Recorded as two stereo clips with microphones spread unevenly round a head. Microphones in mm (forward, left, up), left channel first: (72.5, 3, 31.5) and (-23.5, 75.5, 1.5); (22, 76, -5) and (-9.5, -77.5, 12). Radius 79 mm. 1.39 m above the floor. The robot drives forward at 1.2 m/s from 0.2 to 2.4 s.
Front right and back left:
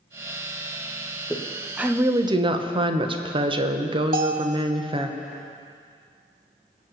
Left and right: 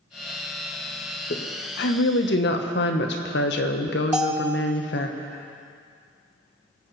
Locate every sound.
1.3 s a woman speaking: 45° left, 1.6 m; by 5.1 s 100° left, 1.2 m
4.1 s a bell: straight behind, 1.0 m